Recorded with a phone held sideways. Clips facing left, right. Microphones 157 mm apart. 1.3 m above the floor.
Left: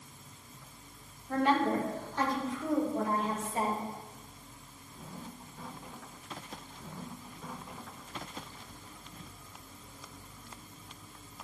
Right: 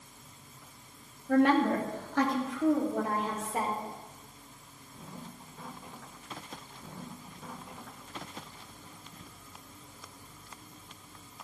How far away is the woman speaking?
About 2.5 m.